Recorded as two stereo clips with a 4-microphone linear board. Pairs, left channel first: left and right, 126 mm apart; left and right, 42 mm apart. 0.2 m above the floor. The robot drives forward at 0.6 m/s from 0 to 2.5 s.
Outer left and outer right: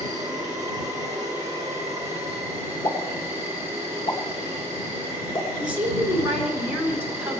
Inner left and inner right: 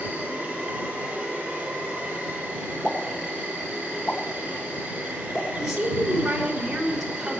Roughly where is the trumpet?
I don't hear a trumpet.